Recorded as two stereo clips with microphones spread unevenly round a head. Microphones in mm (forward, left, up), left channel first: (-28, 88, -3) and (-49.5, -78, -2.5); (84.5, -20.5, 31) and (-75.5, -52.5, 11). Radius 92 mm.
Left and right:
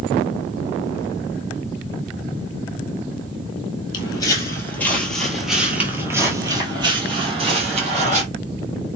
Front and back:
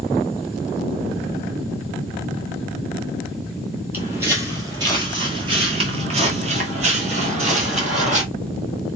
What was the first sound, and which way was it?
Footsteps, 110° left.